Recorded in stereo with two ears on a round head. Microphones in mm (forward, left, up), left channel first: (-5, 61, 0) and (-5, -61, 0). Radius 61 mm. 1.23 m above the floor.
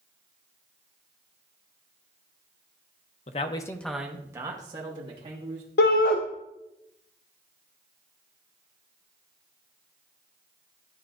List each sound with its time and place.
3.3 s a man speaking: 50° left (ahead or behind), 0.6 m; by 5.7 s 40° right (ahead or behind), 2 m
5.8 s a shout: 80° left, 0.5 m